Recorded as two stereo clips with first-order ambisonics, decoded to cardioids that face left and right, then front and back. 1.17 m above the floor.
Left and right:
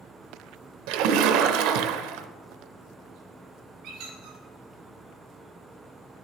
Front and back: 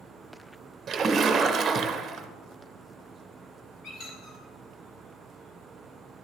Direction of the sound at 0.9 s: 110° right.